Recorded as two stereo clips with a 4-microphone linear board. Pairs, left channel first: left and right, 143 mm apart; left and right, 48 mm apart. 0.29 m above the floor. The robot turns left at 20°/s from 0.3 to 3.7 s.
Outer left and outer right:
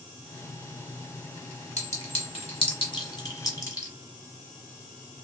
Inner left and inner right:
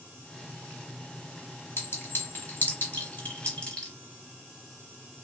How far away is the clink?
About 1.3 m.